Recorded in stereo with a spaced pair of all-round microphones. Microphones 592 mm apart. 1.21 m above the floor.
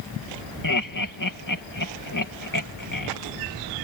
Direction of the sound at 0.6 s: 35° left (ahead or behind).